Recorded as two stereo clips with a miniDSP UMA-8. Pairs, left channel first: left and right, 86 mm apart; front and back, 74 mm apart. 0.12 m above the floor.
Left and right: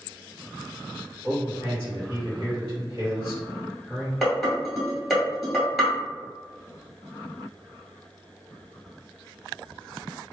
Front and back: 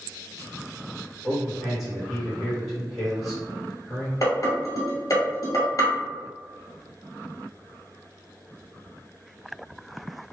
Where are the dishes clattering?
Straight ahead, 1.4 m.